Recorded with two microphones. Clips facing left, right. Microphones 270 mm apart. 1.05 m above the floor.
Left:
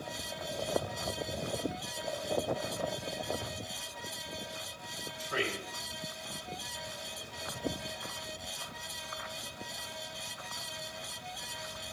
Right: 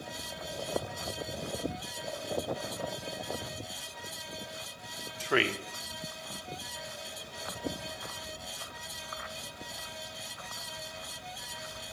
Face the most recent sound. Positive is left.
turn(degrees=-70)  # may be behind; listen again after turning